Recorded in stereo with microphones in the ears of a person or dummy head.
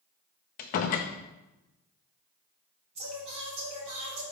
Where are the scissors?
No scissors in this recording.